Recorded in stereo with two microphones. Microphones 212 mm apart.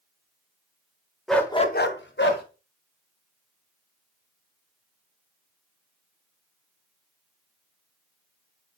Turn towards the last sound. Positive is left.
turn(degrees=55)  # may be behind; listen again after turning